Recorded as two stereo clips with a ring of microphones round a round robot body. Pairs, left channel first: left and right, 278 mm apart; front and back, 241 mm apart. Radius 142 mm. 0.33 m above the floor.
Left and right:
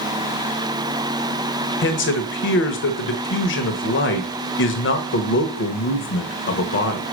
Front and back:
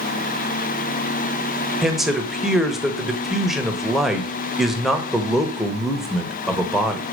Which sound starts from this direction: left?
A man speaking, at 1.8 s.